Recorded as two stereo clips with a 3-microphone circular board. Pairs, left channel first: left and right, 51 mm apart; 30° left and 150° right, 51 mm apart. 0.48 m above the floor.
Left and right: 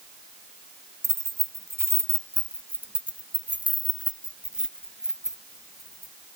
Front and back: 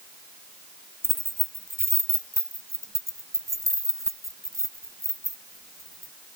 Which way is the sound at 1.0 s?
110° right.